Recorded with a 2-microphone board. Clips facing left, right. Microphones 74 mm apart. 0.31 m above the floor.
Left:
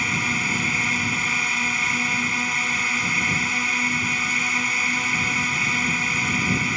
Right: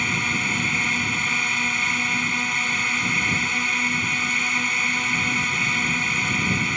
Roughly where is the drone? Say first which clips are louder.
Even; centre.